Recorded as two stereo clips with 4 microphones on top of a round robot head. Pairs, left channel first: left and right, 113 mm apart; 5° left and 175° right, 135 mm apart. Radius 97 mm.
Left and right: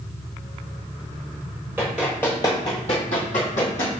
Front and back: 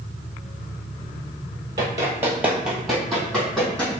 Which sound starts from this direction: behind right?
Running footsteps, at 1.8 s.